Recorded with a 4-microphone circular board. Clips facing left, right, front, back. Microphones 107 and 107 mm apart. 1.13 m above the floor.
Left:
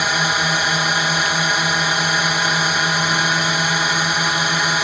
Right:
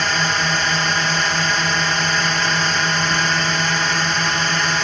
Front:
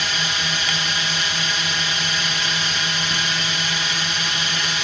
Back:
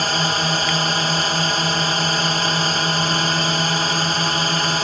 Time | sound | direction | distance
0.0 | a drone | 170° left | ?